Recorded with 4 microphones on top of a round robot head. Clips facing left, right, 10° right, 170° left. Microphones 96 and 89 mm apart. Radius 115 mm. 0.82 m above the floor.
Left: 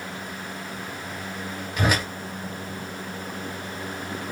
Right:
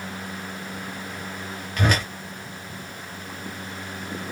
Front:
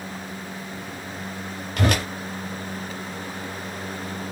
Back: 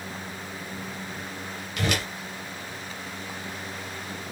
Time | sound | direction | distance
1.8 | a whoosh | 10° left | 0.6 m